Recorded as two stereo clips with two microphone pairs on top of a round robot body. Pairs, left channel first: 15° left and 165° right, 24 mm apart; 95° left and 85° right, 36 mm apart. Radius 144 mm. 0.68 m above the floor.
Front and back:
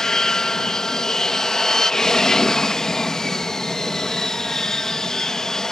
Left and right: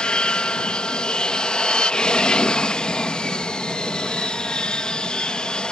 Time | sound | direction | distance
0.0 | an aircraft | 60° left | ?